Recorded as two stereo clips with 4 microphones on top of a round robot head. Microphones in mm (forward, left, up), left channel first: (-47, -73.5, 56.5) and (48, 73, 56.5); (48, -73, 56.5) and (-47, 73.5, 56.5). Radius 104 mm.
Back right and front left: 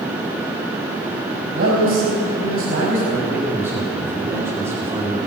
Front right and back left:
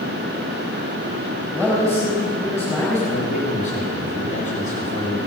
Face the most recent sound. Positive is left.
turn(degrees=-20)